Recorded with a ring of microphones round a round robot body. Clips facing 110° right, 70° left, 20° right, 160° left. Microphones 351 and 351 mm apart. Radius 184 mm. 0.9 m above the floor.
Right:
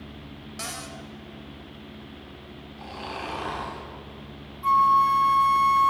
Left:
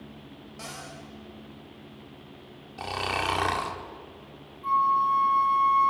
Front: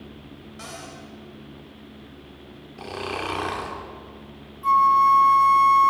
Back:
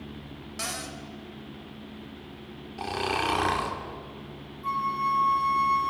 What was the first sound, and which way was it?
A cupboard door, 160° right.